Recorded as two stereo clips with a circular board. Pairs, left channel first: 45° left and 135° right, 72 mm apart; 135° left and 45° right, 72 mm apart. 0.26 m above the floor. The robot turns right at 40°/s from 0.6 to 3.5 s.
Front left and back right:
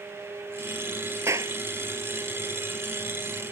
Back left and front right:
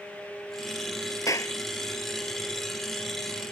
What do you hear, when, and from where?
1.3 s a clap: 175° left; by 1.6 s 175° right